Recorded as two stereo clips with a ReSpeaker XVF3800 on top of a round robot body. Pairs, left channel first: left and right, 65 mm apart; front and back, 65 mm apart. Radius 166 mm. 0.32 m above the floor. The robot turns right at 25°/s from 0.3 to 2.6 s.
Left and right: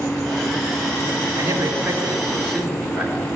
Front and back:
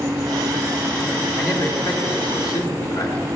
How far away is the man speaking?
About 3.5 m.